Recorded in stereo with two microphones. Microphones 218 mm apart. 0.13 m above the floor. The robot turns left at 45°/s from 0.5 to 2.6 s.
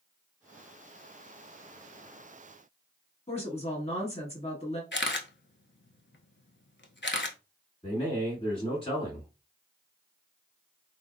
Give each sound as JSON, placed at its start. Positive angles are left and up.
{"t": 3.3, "sound": "a woman speaking", "side_deg": 30, "distance_m": 1.3}
{"t": 4.9, "sound": "a camera shutter", "side_deg": 55, "distance_m": 0.5}
{"t": 7.8, "sound": "a man speaking", "side_deg": 25, "distance_m": 1.6}